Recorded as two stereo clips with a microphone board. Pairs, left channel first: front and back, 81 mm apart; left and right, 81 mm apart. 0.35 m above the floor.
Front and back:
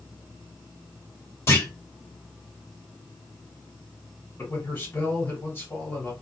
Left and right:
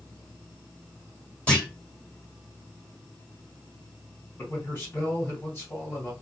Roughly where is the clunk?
Ahead left.